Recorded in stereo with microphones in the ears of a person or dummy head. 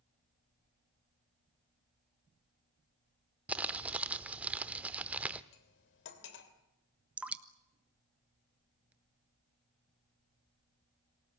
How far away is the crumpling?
About 1.1 m.